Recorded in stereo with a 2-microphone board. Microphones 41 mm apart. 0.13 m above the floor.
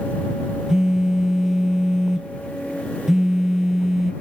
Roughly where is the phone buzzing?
Centre.